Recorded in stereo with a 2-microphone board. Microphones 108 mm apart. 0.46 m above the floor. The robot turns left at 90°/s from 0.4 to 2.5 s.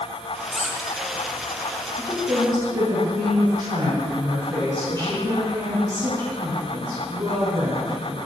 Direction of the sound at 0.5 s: 175° right.